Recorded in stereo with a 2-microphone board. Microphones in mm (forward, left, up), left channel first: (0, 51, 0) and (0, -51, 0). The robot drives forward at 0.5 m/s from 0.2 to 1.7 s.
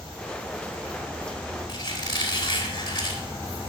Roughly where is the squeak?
Left.